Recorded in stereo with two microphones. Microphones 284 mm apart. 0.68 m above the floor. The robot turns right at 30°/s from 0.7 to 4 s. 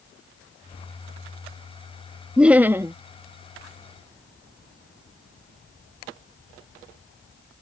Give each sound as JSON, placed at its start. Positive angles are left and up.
{"t": 2.4, "sound": "laughter", "side_deg": -5}